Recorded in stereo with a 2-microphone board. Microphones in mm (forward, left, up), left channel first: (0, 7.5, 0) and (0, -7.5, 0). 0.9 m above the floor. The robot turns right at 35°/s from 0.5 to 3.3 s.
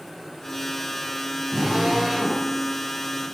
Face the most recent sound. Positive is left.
turn(degrees=25)